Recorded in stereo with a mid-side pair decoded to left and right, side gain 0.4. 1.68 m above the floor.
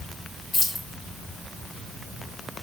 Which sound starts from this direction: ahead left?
Keys jangling, at 0.5 s.